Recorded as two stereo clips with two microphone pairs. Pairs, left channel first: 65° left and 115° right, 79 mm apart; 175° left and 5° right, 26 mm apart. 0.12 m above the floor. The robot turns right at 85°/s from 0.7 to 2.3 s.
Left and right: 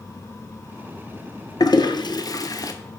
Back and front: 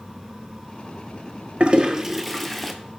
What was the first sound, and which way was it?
A toilet flushing, 35° left.